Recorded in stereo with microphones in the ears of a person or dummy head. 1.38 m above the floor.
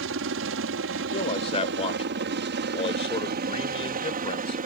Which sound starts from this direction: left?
A man speaking, at 1.1 s.